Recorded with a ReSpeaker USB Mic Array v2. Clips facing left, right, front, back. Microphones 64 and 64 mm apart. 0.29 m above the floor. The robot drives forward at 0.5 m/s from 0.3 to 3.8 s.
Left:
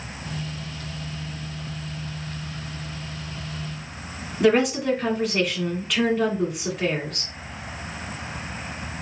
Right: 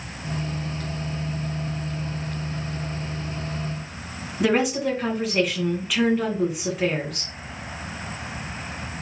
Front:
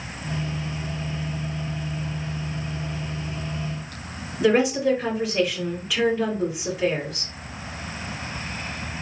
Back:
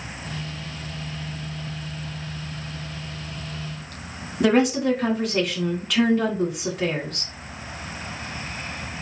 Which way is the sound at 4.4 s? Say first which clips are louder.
Left 2 dB, even; 175° right.